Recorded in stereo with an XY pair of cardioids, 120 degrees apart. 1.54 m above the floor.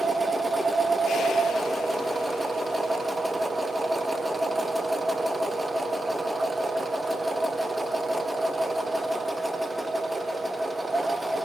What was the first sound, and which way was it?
A machine running, 10° right.